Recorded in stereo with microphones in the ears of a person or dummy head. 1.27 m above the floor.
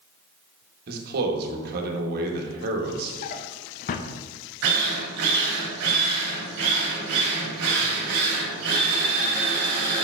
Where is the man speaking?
55° right (ahead or behind), 1.4 m.